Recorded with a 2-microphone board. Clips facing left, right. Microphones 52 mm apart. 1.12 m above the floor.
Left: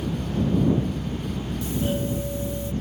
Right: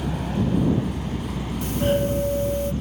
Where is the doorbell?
70° right (ahead or behind).